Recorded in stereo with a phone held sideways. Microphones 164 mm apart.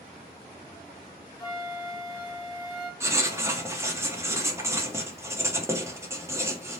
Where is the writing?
15° right (ahead or behind), 0.7 m.